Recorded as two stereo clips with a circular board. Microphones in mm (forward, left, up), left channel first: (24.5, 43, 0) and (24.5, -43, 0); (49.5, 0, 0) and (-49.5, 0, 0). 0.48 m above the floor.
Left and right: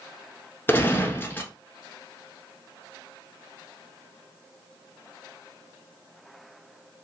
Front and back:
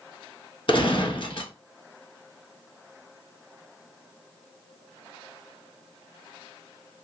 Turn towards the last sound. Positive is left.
turn(degrees=25)